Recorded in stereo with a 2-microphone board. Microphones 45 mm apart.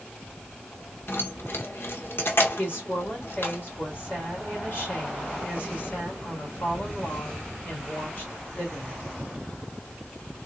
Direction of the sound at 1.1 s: 60° left (ahead or behind).